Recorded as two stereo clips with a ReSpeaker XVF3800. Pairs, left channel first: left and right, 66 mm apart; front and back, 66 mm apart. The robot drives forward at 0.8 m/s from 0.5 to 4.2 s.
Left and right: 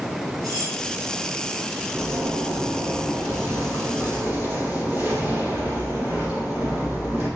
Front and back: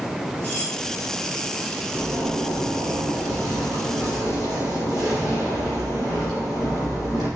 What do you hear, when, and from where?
0.4 s cutlery clinking: 65° right, 3 m; by 0.8 s 70° right, 3 m
1.9 s a zipper: 135° right, 2.5 m; by 7.3 s 155° right, 4 m